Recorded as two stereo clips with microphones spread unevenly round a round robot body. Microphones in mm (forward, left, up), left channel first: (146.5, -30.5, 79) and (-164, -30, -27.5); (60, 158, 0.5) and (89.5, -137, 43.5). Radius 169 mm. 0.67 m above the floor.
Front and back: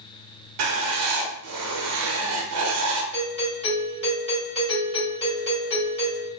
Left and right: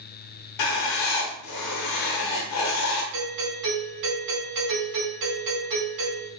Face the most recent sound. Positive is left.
turn(degrees=-80)